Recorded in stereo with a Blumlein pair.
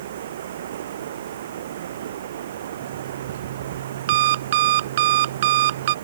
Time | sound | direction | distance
0.0 | running water | 60° right | ?
2.8 | an alarm clock | 55° right | ?